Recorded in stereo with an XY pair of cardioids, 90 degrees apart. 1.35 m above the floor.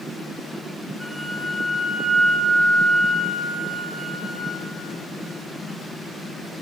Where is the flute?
Straight ahead, 1.0 m.